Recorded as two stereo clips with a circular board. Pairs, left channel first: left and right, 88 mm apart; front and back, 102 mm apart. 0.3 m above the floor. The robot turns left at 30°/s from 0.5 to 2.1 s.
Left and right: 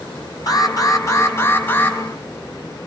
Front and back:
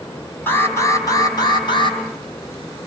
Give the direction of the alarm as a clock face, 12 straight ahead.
10 o'clock.